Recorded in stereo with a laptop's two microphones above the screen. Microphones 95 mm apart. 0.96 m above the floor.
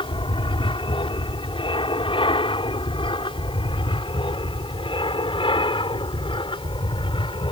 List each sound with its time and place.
0.0 s an aircraft: 60° left (ahead or behind)